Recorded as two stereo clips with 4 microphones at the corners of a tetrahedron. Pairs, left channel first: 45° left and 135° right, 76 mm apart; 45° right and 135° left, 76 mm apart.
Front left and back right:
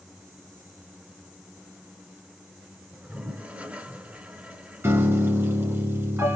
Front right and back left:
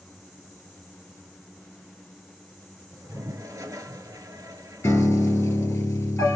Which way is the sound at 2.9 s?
160° left.